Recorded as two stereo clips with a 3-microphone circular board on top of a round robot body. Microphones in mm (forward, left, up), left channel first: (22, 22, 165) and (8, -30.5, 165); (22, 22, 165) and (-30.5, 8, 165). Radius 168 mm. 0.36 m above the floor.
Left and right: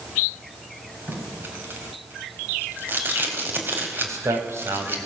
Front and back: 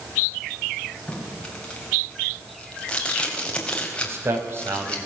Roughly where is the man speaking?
Behind right.